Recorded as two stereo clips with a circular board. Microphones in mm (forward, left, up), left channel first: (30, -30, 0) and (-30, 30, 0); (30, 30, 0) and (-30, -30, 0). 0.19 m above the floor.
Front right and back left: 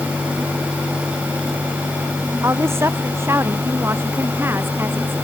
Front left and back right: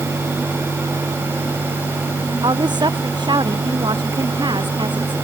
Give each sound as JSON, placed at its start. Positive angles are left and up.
{"t": 2.4, "sound": "a woman speaking", "azimuth_deg": -165}